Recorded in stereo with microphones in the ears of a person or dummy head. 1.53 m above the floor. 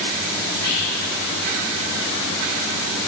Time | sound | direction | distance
0.5 | whispering | 55° left (ahead or behind) | 1.3 m